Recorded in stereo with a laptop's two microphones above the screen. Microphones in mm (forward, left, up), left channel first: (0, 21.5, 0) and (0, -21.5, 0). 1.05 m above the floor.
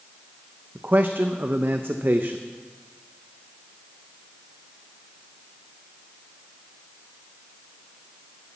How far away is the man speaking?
About 0.6 m.